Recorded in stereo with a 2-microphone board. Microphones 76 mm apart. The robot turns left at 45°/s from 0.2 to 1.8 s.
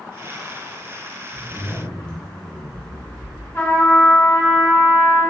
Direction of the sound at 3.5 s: 30° left (ahead or behind).